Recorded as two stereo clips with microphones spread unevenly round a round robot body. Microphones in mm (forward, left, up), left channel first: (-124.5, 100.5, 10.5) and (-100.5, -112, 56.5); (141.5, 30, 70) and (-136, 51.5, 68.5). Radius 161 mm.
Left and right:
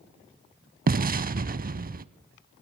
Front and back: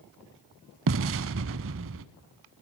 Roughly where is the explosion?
Behind right.